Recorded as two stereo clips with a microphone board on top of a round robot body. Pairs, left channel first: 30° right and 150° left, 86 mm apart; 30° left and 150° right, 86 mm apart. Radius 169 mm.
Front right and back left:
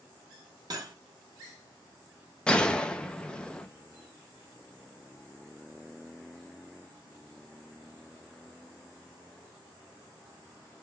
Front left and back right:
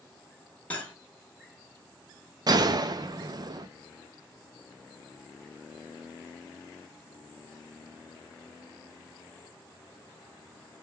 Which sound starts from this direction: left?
Cutlery clinking, at 0.7 s.